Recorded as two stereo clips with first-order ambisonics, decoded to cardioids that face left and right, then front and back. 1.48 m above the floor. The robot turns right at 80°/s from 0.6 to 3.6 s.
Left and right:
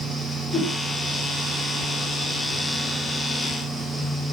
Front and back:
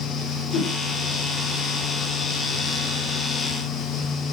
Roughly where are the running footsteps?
I don't hear running footsteps.